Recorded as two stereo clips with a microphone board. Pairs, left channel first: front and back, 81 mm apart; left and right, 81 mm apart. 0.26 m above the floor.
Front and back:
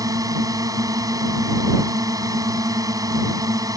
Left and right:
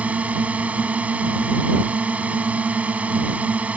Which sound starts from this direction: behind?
A drone, at 0.0 s.